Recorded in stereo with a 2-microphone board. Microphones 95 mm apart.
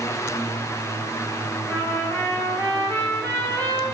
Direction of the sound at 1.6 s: 20° left (ahead or behind).